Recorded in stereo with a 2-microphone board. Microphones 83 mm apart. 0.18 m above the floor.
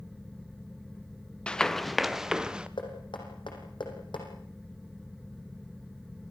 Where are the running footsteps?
10° left (ahead or behind), 0.8 m; by 2.7 s 10° right (ahead or behind), 1.5 m.